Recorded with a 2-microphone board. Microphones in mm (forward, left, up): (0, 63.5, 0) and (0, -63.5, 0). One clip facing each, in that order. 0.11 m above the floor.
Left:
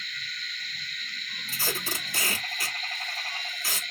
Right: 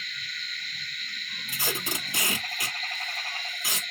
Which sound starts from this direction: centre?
Tape being pulled, at 1.5 s.